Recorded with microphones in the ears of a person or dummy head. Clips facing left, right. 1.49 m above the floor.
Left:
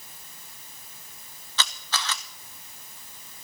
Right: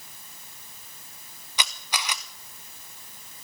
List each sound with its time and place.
1.6 s a camera shutter: 10° right (ahead or behind), 0.7 m